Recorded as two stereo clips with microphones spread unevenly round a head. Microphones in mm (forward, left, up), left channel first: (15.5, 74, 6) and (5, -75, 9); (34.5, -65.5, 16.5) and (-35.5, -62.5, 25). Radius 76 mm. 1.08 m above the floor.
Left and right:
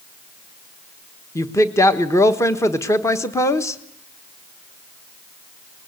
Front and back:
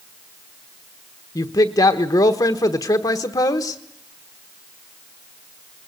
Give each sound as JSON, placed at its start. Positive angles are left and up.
{"t": 1.4, "sound": "a woman speaking", "azimuth_deg": 15, "distance_m": 1.2}